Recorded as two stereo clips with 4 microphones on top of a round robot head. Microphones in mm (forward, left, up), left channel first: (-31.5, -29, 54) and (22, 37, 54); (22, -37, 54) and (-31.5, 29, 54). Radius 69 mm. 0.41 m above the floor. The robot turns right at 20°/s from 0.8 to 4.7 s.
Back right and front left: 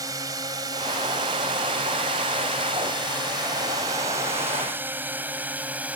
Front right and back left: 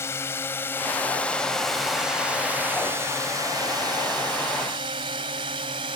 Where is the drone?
10° left; by 6.0 s 125° left.